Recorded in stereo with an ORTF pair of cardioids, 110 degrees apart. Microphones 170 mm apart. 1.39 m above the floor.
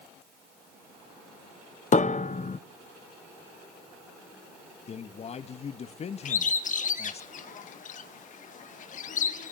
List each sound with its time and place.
1.9 s a piano: 45° left, 0.8 m
4.9 s a man speaking: 40° left, 1.8 m
6.2 s a bird: 50° left, 1.8 m